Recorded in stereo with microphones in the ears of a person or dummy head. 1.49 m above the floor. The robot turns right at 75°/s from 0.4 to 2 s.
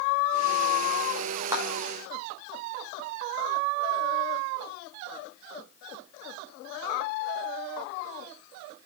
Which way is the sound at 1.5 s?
15° right (ahead or behind).